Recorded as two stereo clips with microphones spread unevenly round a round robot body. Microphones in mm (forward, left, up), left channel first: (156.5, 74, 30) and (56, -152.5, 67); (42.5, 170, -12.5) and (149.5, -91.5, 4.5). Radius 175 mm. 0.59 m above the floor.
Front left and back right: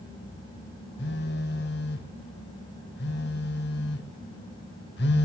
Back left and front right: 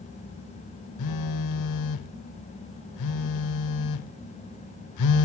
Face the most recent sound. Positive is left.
turn(degrees=130)